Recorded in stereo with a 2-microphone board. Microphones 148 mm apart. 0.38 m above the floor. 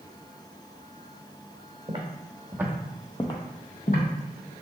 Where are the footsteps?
35° right (ahead or behind), 1.0 m; by 4.5 s 75° left (ahead or behind), 1.2 m.